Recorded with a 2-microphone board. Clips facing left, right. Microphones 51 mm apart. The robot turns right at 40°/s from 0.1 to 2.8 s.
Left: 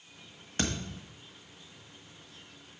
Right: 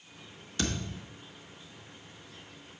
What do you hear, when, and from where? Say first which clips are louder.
0.6 s a thud: even; 40° left (ahead or behind), 1.5 m; by 1.0 s 25° left (ahead or behind), 1.5 m